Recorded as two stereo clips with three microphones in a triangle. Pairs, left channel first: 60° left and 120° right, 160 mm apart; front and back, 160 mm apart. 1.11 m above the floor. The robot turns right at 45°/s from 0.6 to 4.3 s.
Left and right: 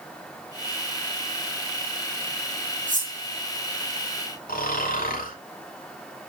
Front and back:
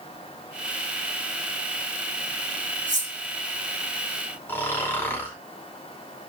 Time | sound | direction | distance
2.9 | cutlery clinking | 150° right | 2 m
4.5 | snoring | 75° left | 2.5 m